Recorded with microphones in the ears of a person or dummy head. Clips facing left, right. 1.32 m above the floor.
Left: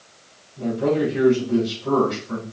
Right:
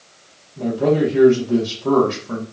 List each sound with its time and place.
0.6 s a man speaking: 80° right, 1.3 m